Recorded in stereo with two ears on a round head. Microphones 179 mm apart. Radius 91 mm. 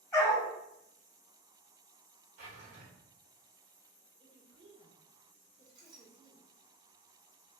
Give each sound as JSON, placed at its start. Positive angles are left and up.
{"t": 0.1, "sound": "a dog barking", "side_deg": 15, "distance_m": 1.5}
{"t": 2.4, "sound": "a drawer", "side_deg": -45, "distance_m": 1.1}
{"t": 4.2, "sound": "a woman speaking", "side_deg": -30, "distance_m": 0.8}
{"t": 5.7, "sound": "a clink", "side_deg": -20, "distance_m": 1.0}